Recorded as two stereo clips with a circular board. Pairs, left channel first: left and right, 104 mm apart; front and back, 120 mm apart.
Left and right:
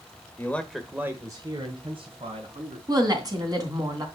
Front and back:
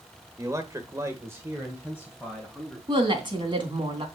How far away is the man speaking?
About 1.3 m.